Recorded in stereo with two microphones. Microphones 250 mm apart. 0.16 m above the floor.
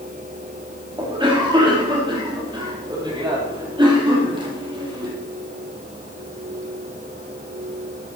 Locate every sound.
1.0 s a cough: 20° right (ahead or behind), 4 m